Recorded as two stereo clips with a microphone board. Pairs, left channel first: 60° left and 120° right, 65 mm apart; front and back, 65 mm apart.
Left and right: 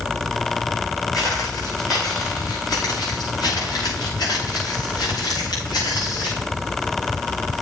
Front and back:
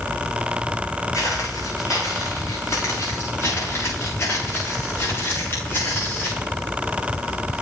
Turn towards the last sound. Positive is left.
turn(degrees=60)